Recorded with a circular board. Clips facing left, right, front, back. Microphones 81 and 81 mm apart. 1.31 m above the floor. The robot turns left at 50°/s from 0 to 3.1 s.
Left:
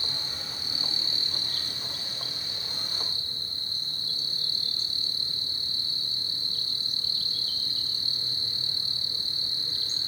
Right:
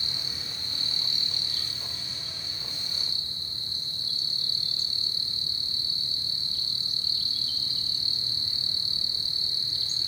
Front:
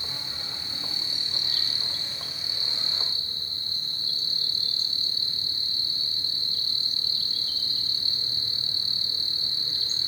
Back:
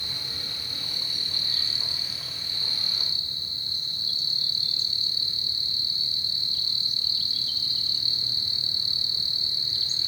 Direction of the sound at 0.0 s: 155° right.